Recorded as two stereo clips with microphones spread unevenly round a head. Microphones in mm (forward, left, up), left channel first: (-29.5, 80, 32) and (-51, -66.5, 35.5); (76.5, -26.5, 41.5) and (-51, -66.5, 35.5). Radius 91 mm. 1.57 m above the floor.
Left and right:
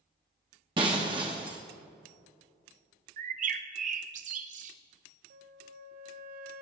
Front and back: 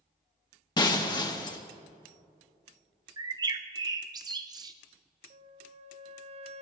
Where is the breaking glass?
35° right, 1.5 m.